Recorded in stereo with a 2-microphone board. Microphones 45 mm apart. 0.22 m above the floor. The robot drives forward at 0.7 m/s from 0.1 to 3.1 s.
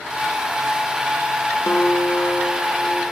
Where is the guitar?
65° left (ahead or behind), 0.6 m; by 3.0 s 25° left (ahead or behind), 1.3 m.